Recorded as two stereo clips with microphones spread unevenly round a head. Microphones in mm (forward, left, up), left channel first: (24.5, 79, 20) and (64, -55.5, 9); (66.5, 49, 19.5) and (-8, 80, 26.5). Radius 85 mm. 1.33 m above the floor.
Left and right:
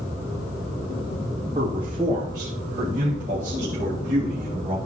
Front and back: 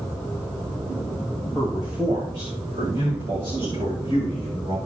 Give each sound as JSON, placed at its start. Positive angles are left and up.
{"t": 1.6, "sound": "a man speaking", "azimuth_deg": -135, "distance_m": 2.5}